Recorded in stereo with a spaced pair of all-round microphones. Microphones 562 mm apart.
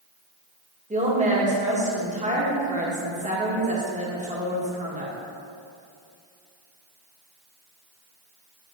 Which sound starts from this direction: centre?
A woman speaking, at 0.9 s.